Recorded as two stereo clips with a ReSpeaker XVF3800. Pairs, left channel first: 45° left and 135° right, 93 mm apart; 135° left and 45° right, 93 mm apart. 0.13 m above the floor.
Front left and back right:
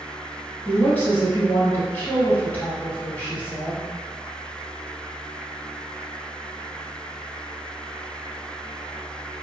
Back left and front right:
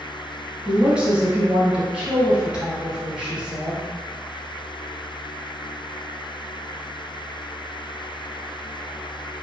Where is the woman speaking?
20° left, 1.0 m.